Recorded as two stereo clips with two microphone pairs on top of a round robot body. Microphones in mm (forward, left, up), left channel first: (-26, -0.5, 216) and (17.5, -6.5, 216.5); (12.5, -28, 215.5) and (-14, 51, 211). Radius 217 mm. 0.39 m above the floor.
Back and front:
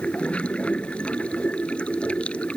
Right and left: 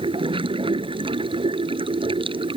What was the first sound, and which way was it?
Running water, 105° left.